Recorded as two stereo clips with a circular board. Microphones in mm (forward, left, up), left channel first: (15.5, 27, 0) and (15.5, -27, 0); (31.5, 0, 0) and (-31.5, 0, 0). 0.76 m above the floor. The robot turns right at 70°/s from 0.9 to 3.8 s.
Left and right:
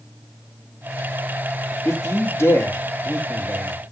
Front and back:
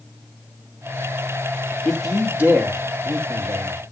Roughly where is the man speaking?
Left.